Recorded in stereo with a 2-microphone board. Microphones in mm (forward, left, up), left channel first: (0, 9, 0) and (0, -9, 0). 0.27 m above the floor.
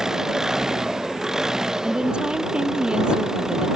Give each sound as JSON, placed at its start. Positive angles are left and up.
{"t": 0.0, "sound": "an engine running", "side_deg": -30}
{"t": 1.8, "sound": "a woman speaking", "side_deg": -65}